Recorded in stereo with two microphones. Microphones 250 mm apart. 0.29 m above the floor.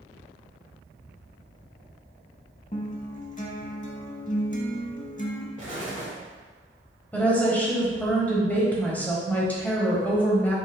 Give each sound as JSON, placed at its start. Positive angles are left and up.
{"t": 2.7, "sound": "a guitar", "side_deg": 30, "distance_m": 0.7}
{"t": 5.6, "sound": "an explosion", "side_deg": -30, "distance_m": 1.2}
{"t": 7.1, "sound": "a woman speaking", "side_deg": 5, "distance_m": 1.2}